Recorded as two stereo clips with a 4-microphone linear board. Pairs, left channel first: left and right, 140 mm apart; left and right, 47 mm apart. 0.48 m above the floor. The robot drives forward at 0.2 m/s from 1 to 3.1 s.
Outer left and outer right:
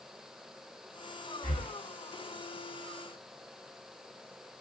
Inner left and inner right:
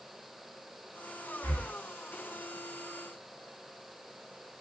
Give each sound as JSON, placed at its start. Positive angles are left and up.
{"t": 1.4, "sound": "breathing", "side_deg": 60, "distance_m": 1.3}